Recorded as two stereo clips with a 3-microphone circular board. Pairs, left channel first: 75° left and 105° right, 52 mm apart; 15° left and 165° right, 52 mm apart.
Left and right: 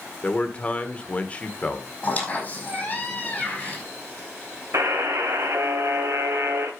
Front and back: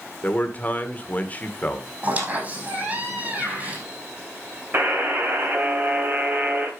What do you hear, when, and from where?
0.2 s a man speaking: 40° left, 1.6 m
2.0 s a squeak: 135° left, 5 m
4.7 s a buzzer: 120° right, 2.5 m